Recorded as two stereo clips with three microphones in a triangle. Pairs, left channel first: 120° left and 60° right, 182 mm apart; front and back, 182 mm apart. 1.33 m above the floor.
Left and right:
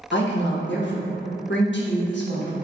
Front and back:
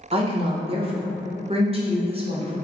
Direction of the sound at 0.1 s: 120° left.